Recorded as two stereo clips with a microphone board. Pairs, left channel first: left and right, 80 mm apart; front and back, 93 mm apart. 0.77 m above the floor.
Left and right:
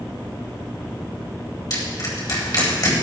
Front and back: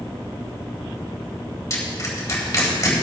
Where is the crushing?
55° left, 3.5 m.